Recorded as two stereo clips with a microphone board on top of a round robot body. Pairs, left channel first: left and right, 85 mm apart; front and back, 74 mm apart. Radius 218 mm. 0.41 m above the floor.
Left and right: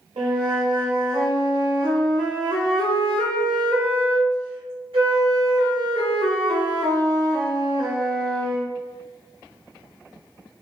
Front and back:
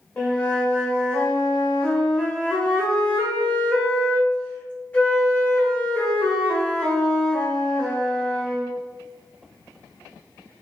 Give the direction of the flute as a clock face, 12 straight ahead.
2 o'clock.